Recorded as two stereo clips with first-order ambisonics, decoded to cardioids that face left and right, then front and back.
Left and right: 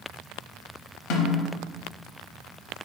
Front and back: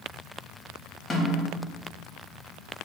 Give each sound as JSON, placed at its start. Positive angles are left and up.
{"t": 1.1, "sound": "a snare drum", "azimuth_deg": 80, "distance_m": 0.7}